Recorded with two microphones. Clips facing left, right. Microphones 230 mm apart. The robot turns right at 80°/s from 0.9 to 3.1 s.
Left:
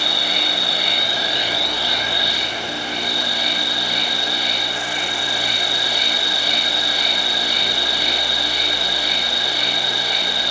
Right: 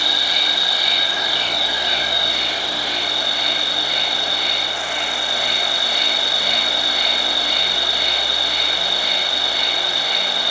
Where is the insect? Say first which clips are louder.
Left 2 dB; 125° left, 1.8 m; by 10.5 s 60° right, 1.8 m.